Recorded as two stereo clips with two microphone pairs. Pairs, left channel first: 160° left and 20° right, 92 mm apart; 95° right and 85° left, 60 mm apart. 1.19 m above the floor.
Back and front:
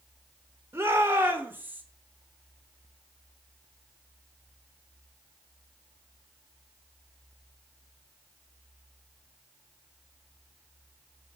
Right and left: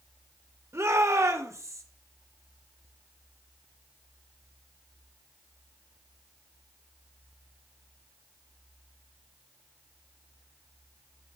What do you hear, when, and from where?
0.7 s a shout: 45° left, 4.5 m; by 1.8 s 50° left, 4 m